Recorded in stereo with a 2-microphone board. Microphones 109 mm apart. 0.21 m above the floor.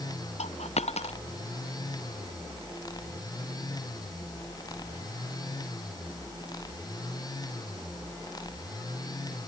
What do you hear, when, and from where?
0.4 s a dropped coin: 80° left